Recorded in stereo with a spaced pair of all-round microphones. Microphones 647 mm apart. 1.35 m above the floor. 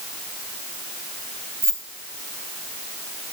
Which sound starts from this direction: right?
Keys jangling, at 1.6 s.